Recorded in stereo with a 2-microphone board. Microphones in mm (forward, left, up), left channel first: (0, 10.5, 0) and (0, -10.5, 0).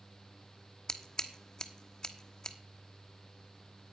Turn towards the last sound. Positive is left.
turn(degrees=30)  # may be behind; listen again after turning